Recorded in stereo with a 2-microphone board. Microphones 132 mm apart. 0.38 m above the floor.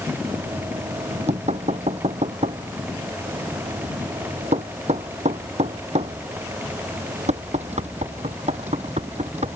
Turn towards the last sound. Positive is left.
turn(degrees=-60)  # may be behind; listen again after turning